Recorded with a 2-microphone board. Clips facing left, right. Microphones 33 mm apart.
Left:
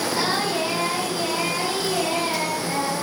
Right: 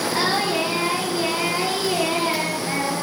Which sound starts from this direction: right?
Singing, at 0.1 s.